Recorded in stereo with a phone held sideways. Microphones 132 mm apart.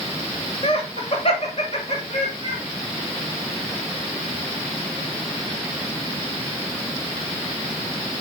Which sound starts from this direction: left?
Laughter, at 0.6 s.